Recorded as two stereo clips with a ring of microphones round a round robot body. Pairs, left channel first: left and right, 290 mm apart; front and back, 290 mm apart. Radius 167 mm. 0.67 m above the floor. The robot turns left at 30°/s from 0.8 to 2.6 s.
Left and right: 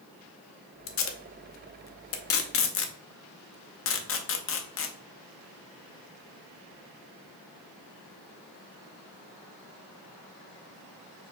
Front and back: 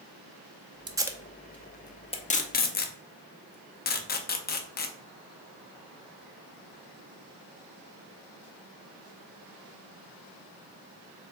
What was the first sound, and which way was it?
Tape being pulled, 105° left.